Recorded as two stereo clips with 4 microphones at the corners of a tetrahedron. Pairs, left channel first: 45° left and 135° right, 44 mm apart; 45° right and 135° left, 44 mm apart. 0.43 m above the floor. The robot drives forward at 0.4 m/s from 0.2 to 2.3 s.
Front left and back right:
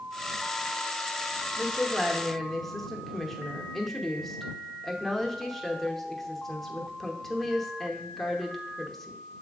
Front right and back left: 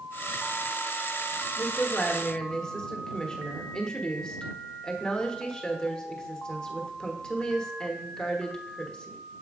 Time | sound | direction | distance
1.6 | a woman speaking | 15° right | 1.1 m